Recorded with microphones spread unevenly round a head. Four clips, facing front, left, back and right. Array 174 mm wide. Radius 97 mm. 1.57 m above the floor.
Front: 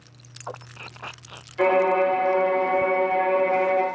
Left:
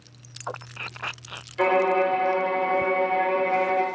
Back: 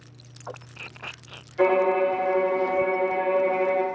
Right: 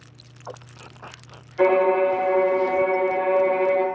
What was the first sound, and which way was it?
A violin, 55° right.